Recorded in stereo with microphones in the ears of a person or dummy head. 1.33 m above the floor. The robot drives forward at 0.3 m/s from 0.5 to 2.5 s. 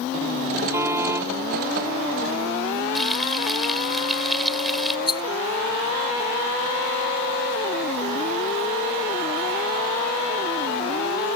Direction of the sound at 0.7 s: 15° right (ahead or behind).